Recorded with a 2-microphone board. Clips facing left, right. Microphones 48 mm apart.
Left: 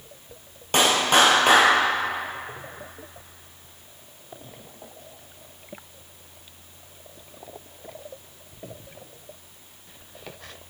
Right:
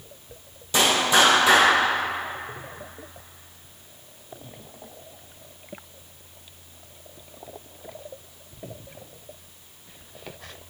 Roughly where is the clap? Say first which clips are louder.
Left 1 dB; left.